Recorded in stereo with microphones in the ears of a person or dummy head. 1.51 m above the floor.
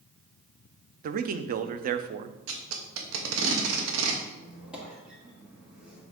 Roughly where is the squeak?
Centre.